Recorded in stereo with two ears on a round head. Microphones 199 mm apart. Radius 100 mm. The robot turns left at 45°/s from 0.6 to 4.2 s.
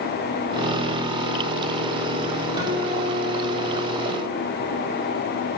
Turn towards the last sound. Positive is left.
turn(degrees=-95)